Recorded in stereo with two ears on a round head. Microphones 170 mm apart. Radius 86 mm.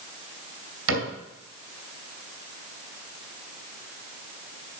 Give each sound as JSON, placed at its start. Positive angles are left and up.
{"t": 0.9, "sound": "a cupboard door", "side_deg": -80, "distance_m": 3.5}